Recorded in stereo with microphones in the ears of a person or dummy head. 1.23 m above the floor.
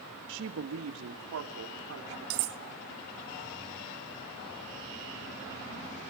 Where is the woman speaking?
60° right (ahead or behind), 1.3 m; by 2.4 s 80° right, 3 m.